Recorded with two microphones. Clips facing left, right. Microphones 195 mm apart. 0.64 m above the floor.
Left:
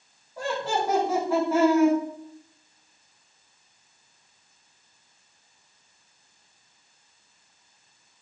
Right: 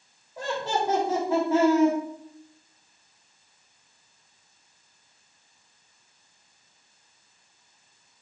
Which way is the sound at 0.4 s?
15° right (ahead or behind).